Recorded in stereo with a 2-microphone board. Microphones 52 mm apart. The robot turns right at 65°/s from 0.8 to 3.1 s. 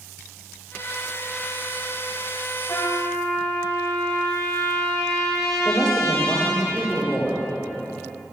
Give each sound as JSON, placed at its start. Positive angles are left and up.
{"t": 2.7, "sound": "a trumpet", "side_deg": 85, "distance_m": 1.8}
{"t": 5.7, "sound": "a woman speaking", "side_deg": 20, "distance_m": 2.5}